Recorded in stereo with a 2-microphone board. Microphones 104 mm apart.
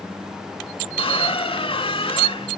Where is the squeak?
70° left (ahead or behind), 1.2 m.